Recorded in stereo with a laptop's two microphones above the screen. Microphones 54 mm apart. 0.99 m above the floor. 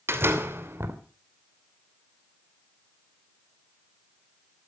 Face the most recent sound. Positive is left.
turn(degrees=-50)  # may be behind; listen again after turning